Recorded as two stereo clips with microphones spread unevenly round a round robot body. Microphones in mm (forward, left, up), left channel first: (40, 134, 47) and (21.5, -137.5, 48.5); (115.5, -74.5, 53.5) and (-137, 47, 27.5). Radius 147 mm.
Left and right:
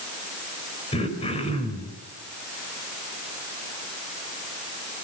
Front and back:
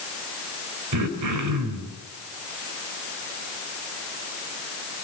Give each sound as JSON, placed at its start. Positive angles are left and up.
{"t": 0.9, "sound": "throat clearing", "azimuth_deg": 155, "distance_m": 4.0}